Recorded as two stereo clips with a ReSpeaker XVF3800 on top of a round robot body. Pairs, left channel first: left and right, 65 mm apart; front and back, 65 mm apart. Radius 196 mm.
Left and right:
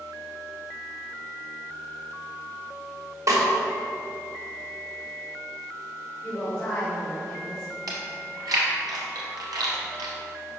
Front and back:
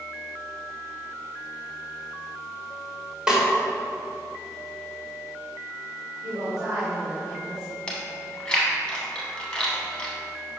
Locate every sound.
3.3 s a snare drum: 105° right, 2.0 m
6.2 s a woman speaking: 165° left, 2 m
7.9 s chewing: 75° right, 0.7 m